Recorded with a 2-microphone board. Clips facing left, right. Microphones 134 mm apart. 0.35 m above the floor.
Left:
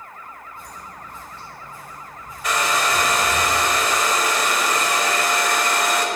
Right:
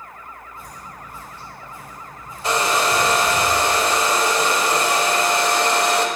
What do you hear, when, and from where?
0.6 s footsteps: centre (ahead or behind), 3 m; by 3.4 s 50° right (ahead or behind), 3 m
2.4 s a hair dryer: 30° right (ahead or behind), 1.0 m